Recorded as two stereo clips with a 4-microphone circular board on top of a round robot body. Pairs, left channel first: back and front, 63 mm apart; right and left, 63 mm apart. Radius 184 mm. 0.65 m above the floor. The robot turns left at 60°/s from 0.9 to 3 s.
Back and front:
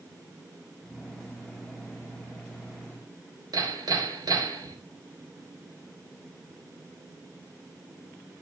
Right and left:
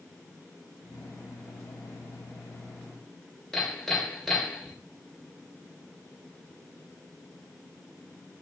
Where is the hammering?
5° right, 3.5 m.